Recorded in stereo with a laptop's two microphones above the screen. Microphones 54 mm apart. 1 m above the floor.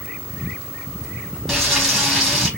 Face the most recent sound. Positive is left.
turn(degrees=0)  # may be behind; listen again after turning